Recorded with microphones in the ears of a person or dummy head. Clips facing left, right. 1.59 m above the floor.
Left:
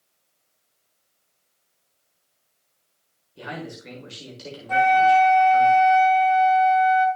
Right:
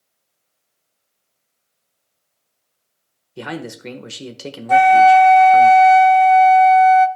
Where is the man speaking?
65° right (ahead or behind), 1.4 m.